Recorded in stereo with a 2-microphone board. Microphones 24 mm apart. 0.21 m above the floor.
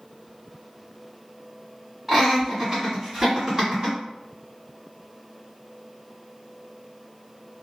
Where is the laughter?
20° right (ahead or behind), 1.4 m; by 4.0 s 35° right (ahead or behind), 1.7 m.